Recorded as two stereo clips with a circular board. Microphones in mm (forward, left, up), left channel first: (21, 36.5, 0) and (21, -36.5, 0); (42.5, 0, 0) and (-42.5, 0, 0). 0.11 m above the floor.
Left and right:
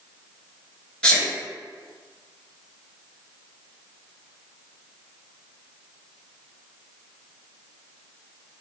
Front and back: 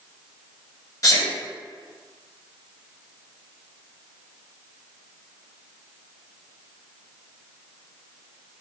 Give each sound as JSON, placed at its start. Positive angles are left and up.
{"t": 1.0, "sound": "a sneeze", "azimuth_deg": 20, "distance_m": 1.4}